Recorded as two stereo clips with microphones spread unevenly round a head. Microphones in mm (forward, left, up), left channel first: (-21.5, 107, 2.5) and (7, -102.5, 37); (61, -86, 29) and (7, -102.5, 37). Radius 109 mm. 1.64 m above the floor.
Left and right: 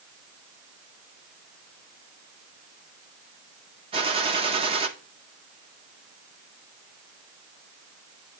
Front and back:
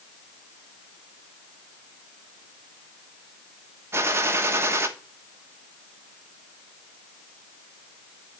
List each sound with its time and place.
3.9 s a gunshot: 140° right, 1.2 m